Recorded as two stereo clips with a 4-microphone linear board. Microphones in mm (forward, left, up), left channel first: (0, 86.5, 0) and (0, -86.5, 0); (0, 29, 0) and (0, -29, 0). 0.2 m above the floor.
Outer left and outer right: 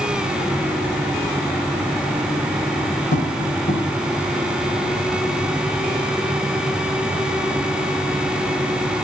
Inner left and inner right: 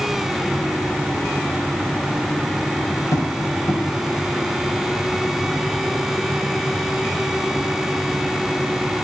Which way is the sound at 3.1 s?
75° left (ahead or behind).